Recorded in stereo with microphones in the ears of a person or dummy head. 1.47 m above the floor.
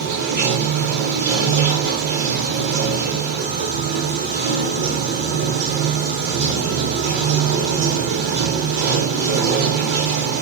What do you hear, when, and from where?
0.0 s running water: 60° right (ahead or behind), 0.8 m